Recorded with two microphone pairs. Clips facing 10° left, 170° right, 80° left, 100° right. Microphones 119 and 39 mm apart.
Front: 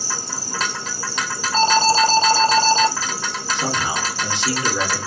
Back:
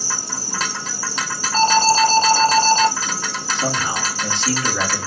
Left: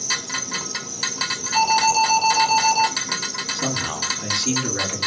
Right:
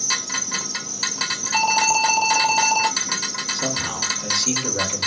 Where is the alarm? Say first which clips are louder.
Back 1 dB, left 2 dB; 35° right, 1.1 m.